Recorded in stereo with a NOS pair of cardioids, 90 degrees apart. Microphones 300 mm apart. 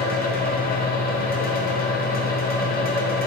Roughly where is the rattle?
I don't hear a rattle.